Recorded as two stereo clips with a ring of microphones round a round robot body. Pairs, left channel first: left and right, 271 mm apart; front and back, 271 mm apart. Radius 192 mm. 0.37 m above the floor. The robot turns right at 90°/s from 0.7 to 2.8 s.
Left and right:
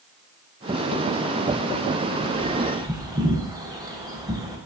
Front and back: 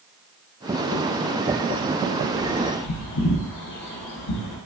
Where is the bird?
55° right, 0.6 m; by 4.6 s 10° right, 0.6 m.